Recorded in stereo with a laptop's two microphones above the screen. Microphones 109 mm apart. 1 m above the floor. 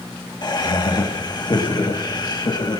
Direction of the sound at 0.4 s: 40° left (ahead or behind).